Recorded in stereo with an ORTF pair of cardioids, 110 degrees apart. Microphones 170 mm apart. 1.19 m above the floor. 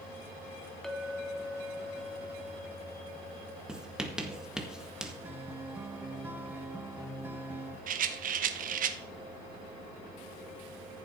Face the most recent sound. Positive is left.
turn(degrees=-55)